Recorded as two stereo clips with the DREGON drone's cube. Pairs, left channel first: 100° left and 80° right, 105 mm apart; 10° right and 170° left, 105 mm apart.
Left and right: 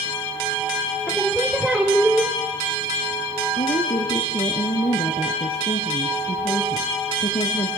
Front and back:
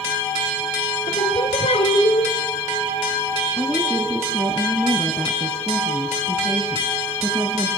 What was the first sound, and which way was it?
Singing, straight ahead.